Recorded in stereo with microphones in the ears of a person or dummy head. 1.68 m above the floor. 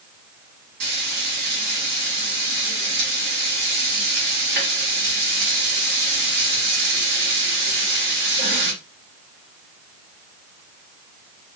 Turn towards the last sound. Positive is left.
turn(degrees=-60)  # may be behind; listen again after turning